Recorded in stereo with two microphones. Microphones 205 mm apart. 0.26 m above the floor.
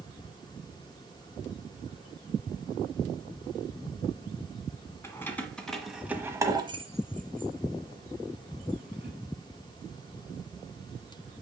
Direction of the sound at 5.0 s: 10° left (ahead or behind).